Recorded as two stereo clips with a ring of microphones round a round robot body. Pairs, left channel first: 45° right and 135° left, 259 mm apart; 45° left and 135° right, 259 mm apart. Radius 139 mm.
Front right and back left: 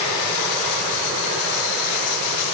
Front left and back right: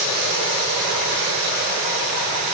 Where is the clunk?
No clunk in this recording.